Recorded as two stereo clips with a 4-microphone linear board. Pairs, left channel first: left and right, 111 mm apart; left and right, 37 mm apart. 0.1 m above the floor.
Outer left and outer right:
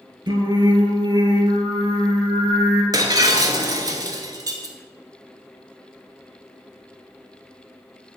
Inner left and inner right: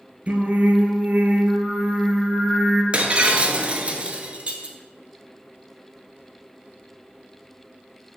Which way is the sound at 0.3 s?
40° right (ahead or behind).